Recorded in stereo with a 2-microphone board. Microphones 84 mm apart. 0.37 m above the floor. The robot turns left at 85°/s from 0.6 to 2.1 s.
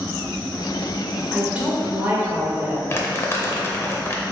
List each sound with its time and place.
1.3 s a woman speaking: 5° right (ahead or behind), 0.9 m; by 2.8 s 25° right (ahead or behind), 0.9 m
2.9 s crumpling: 30° left (ahead or behind), 0.5 m